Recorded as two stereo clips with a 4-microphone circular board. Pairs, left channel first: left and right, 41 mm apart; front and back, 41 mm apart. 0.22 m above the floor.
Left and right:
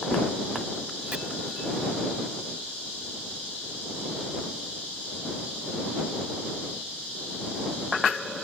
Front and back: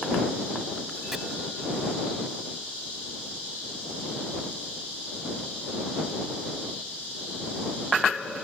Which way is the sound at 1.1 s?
110° right.